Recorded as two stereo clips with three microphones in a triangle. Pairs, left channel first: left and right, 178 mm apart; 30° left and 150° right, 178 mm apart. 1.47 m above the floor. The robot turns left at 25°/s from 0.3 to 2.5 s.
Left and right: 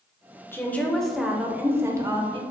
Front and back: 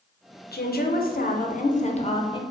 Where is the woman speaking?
15° left, 0.5 m; by 2.4 s 30° right, 0.5 m.